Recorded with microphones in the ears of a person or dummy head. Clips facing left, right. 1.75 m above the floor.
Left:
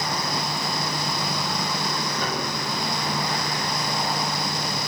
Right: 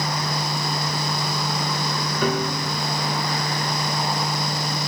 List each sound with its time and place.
2.2 s a piano: 65° right (ahead or behind), 1.9 m